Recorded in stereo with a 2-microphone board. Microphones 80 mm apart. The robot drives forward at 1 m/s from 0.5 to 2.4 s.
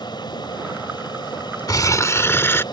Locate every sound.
0.0 s an aircraft: 60° left (ahead or behind)
1.7 s crumpling: 50° left (ahead or behind); by 2.6 s 30° left (ahead or behind)